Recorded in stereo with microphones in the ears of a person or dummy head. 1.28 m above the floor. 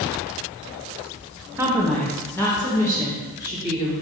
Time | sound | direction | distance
1.6 | a woman speaking | 15° right (ahead or behind) | 0.6 m